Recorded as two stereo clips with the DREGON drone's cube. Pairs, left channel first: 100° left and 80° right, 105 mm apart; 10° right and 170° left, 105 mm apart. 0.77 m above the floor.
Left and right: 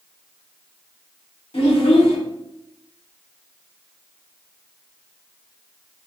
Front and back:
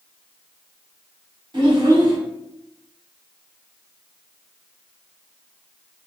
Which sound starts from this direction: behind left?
A child speaking, at 1.5 s.